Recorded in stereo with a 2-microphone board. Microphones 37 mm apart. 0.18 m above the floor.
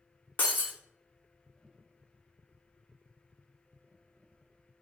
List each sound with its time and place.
0.4 s breaking glass: 60° left (ahead or behind), 0.5 m